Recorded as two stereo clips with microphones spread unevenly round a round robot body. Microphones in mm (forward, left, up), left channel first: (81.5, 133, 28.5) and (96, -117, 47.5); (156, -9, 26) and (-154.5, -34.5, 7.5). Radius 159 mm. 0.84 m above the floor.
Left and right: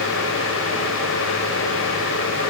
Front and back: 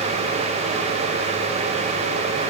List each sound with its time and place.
Only background noise.